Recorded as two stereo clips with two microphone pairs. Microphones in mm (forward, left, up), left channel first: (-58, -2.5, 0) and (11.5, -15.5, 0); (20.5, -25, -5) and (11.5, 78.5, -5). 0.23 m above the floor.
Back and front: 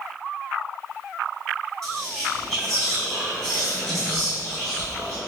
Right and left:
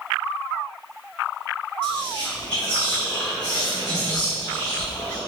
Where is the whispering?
145° right, 1.6 m.